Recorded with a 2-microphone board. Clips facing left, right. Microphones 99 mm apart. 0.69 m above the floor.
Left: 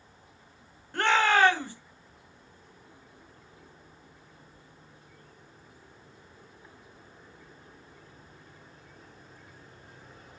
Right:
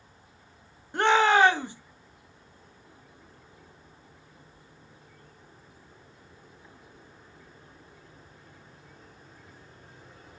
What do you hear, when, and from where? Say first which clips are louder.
0.9 s a shout: right 3 dB; 20° right (ahead or behind), 0.6 m